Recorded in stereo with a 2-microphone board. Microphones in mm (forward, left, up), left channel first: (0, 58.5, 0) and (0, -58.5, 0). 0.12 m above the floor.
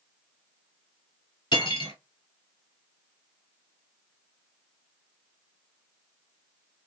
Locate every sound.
1.5 s cutlery clinking: 40° left (ahead or behind), 1.2 m